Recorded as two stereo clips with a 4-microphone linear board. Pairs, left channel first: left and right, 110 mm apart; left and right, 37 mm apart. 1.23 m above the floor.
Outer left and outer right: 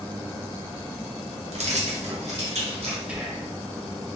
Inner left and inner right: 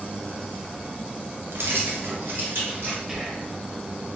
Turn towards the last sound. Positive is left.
turn(degrees=-10)  # may be behind; listen again after turning